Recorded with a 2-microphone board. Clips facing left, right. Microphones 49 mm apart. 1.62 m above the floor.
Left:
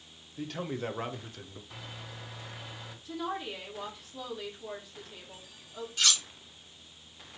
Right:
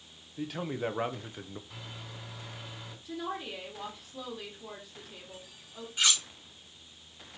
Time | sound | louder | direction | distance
0.4 | a man speaking | right 1 dB | 5° right (ahead or behind) | 1.3 m
1.7 | a microwave | left 1 dB | centre (ahead or behind) | 3.5 m
3.0 | a woman speaking | left 1 dB | 5° right (ahead or behind) | 2.5 m
6.0 | cutlery clinking | right 1 dB | 20° right (ahead or behind) | 1.3 m